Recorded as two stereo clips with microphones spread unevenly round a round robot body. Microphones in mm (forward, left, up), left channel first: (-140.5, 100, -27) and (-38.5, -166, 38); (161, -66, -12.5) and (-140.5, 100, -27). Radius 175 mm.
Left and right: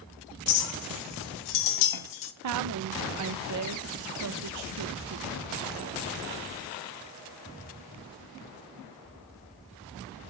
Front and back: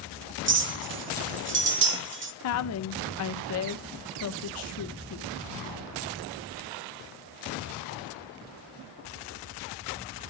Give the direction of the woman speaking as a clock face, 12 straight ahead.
2 o'clock.